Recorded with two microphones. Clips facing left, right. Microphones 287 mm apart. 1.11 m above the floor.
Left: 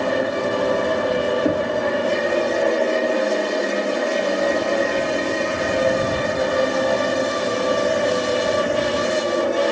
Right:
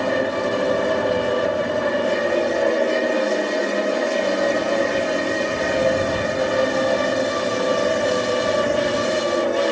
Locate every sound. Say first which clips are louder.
0.0 s an aircraft: even; centre (ahead or behind)
1.4 s knocking: left 2 dB; 60° left (ahead or behind)